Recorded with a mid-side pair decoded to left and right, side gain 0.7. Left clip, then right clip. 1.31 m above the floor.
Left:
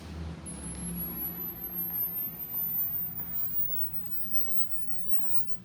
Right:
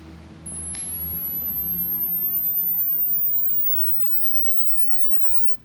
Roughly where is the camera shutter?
Ahead right.